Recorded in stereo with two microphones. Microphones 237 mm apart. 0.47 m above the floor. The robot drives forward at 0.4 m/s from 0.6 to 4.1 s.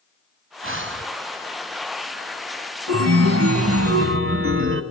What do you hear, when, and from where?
0.6 s breathing: 60° right (ahead or behind), 0.9 m; by 1.1 s 50° right (ahead or behind), 1.0 m
2.9 s a chime: 85° right, 1.0 m; by 4.8 s 60° right (ahead or behind), 1.1 m